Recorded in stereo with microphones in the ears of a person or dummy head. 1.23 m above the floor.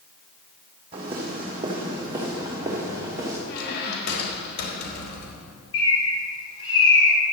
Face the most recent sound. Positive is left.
turn(degrees=30)  # may be behind; listen again after turning